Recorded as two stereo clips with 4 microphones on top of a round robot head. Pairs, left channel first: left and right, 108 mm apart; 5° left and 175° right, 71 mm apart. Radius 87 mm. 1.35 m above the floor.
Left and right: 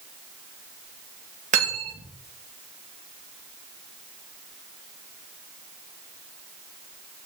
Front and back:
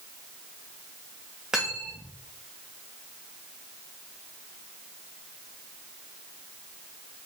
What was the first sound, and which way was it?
Cutlery clinking, 90° right.